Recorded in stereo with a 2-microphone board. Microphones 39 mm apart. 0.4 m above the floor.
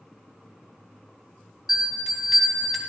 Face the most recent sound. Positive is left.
turn(degrees=-5)  # may be behind; listen again after turning